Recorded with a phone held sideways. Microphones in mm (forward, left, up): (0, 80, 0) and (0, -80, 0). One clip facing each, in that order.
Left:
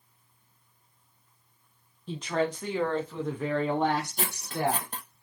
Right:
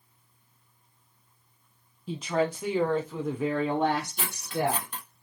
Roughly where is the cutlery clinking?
Left.